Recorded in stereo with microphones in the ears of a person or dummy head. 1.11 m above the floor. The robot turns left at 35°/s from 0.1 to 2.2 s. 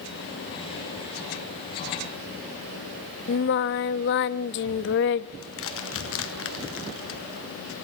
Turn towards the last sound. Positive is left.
turn(degrees=70)  # may be behind; listen again after turning